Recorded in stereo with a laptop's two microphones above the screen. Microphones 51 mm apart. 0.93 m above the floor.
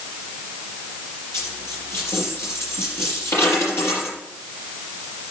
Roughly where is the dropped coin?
Left.